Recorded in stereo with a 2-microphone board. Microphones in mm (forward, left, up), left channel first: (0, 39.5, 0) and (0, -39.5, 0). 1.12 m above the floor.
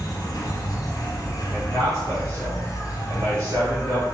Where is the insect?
50° left (ahead or behind), 1.0 m.